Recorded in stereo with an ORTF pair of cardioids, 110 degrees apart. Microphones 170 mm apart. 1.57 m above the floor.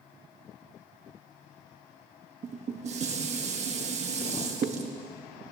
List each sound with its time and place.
2.4 s dishes clattering: 45° right, 1.7 m